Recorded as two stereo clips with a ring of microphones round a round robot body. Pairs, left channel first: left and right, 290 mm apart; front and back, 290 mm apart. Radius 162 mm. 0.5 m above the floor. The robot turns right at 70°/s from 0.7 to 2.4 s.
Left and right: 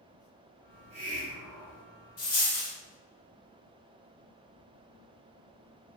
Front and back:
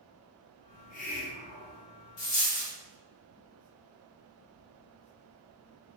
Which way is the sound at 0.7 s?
55° right.